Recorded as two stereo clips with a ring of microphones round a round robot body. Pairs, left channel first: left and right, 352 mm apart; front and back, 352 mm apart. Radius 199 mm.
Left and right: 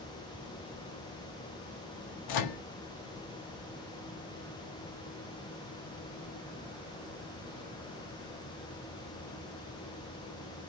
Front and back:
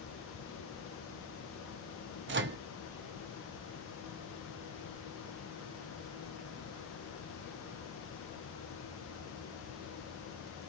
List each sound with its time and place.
2.3 s a microwave: 120° left, 0.5 m